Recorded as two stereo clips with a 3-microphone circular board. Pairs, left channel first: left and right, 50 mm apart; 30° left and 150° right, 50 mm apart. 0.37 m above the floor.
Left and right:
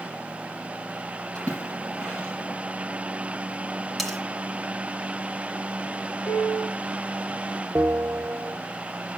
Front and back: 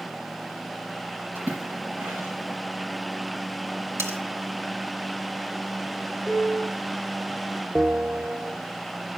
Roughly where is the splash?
Behind.